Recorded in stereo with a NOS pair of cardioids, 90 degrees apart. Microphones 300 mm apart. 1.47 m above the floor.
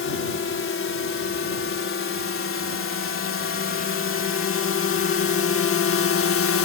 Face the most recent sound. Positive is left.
turn(degrees=50)